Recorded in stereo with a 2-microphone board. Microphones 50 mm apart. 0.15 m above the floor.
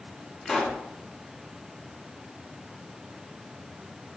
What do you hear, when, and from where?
0.5 s a pop: 15° left (ahead or behind), 1.2 m